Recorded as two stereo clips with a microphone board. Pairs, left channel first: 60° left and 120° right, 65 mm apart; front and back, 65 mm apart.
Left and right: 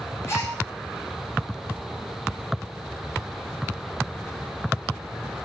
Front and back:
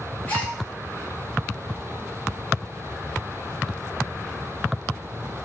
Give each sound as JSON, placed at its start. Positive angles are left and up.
{"t": 0.3, "sound": "a gasp", "azimuth_deg": 55, "distance_m": 1.0}